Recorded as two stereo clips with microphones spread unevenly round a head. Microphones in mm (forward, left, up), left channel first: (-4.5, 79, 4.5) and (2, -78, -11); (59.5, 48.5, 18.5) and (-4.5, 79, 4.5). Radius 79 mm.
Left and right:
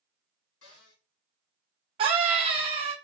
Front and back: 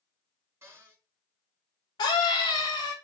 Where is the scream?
30° right, 1.1 m.